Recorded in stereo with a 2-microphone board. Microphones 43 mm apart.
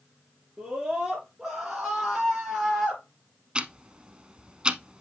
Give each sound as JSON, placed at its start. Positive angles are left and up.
{"t": 0.6, "sound": "a scream", "side_deg": -30, "distance_m": 4.0}
{"t": 3.5, "sound": "ticking", "side_deg": -25, "distance_m": 0.6}